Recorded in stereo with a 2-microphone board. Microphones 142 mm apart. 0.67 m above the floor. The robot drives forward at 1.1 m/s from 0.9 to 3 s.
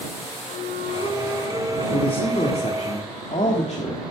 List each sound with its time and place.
0.5 s a flute: 50° left (ahead or behind), 9.5 m; by 1.8 s 60° left (ahead or behind), 8.5 m
1.9 s a man speaking: 40° left (ahead or behind), 2 m; by 4.0 s 55° left (ahead or behind), 1.7 m